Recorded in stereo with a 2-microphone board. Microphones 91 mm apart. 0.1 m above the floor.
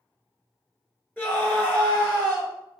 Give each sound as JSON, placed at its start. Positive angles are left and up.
{"t": 1.2, "sound": "a scream", "side_deg": 20, "distance_m": 1.6}